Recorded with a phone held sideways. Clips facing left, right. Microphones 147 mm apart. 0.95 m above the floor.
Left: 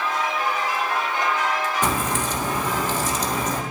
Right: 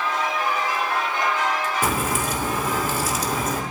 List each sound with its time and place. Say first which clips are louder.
1.8 s a crack: even; 10° right (ahead or behind), 2.5 m